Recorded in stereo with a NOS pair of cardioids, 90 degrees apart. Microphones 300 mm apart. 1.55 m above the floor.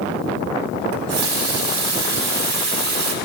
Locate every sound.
0.9 s a running tap: 50° right, 2 m